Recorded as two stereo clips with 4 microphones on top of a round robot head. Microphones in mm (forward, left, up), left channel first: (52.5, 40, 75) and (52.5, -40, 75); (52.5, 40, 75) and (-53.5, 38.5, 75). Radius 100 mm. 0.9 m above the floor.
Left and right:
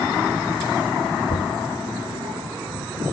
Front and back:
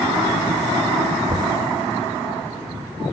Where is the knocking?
115° left, 0.9 m.